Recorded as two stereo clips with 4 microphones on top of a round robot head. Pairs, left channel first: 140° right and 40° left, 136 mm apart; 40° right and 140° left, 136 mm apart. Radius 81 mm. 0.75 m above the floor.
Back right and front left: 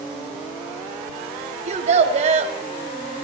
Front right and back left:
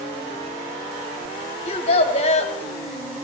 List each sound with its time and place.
1.6 s a child speaking: straight ahead, 2.5 m